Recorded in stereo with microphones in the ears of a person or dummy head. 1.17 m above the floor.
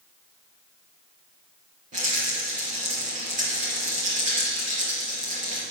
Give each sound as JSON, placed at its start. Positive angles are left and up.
{"t": 1.9, "sound": "a rattle", "side_deg": -50, "distance_m": 4.5}